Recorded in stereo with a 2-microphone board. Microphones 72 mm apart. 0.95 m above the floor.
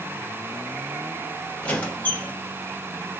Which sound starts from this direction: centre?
A squeak, at 1.6 s.